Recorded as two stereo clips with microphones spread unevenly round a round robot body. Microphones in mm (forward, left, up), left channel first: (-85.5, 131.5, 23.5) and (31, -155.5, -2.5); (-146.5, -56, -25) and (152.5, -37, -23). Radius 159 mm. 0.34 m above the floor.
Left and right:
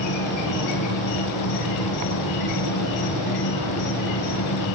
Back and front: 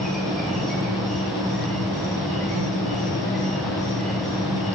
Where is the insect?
95° left, 3 m.